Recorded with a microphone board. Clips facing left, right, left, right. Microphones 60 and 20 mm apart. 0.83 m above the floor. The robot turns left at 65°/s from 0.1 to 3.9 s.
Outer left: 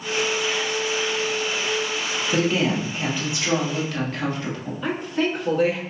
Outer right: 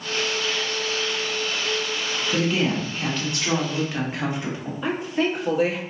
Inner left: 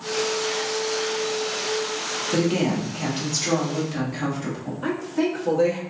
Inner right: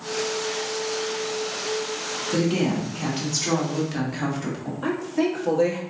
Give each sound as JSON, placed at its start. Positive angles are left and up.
{"t": 2.3, "sound": "a woman speaking", "azimuth_deg": 75, "distance_m": 1.1}
{"t": 4.8, "sound": "a woman speaking", "side_deg": -5, "distance_m": 1.1}